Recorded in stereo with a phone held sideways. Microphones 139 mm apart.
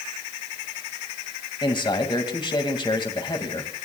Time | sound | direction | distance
1.6 | a man speaking | 35° left (ahead or behind) | 2 m